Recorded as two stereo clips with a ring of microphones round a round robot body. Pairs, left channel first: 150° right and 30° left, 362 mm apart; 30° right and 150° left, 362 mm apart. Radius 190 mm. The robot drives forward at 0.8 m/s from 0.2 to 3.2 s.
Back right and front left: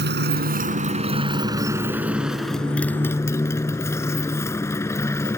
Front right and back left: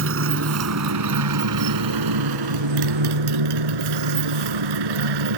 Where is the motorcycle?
95° left; by 5.4 s 125° left.